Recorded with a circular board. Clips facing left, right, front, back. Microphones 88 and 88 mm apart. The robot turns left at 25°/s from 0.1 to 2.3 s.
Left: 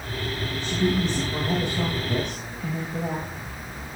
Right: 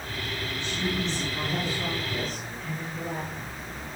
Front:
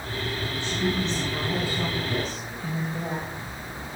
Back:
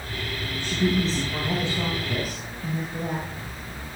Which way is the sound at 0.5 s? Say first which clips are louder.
Left 7 dB, back 4 dB; 140° left.